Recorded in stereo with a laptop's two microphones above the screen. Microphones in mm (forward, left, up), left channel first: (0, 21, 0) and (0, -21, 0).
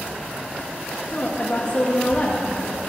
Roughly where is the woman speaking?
Left.